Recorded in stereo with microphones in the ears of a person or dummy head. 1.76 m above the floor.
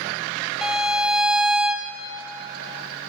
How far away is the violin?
About 0.8 m.